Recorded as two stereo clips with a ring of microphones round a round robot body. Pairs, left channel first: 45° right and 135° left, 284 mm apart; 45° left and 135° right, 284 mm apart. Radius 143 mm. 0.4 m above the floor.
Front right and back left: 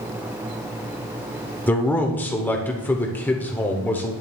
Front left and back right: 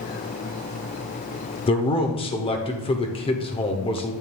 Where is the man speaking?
25° left, 1.0 m.